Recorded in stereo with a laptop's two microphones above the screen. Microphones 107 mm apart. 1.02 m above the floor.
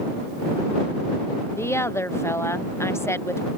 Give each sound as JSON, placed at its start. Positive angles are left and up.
{"t": 1.6, "sound": "a woman speaking", "side_deg": 25}